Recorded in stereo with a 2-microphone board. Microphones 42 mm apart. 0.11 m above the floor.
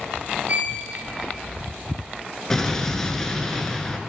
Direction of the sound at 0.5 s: 40° right (ahead or behind).